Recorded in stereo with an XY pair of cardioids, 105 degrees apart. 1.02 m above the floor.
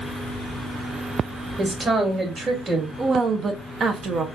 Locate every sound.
1.6 s a woman speaking: 50° right, 2.5 m
3.0 s a woman speaking: 45° right, 1.0 m